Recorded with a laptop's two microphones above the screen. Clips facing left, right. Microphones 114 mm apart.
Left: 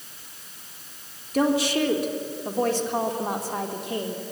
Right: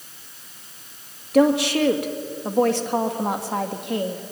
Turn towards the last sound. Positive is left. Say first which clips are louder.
# right 5 dB
turn(degrees=-60)  # may be behind; listen again after turning